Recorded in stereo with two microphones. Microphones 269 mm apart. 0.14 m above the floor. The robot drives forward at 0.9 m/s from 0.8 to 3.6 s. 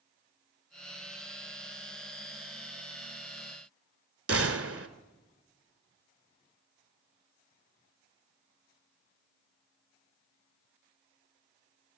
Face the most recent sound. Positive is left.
turn(degrees=-55)  # may be behind; listen again after turning